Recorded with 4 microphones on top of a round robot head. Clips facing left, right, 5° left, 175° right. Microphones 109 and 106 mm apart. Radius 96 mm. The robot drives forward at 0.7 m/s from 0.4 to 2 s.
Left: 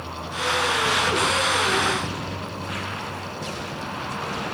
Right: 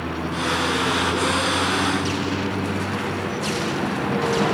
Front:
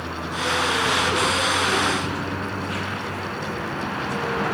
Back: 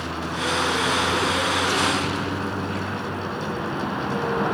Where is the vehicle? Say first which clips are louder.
Right 4 dB, even; 100° right.